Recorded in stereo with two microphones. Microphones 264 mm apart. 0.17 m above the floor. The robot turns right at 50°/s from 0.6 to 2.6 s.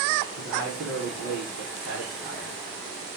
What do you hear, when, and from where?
0.4 s a man speaking: 110° right, 8 m; by 2.5 s 10° right, 8 m